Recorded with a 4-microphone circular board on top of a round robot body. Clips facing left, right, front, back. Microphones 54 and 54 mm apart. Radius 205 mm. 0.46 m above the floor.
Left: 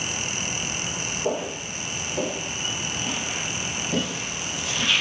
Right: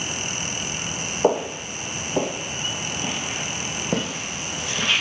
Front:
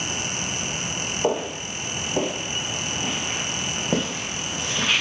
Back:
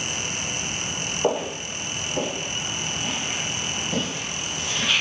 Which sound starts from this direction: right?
Footsteps, at 1.2 s.